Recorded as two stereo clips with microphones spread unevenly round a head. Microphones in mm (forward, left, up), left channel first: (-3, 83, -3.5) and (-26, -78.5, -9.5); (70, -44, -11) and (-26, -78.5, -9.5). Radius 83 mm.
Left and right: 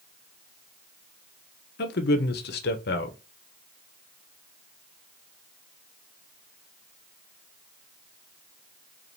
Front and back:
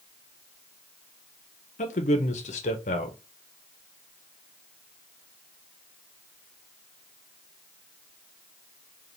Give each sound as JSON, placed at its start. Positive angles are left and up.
{"t": 1.8, "sound": "a man speaking", "azimuth_deg": 50, "distance_m": 0.7}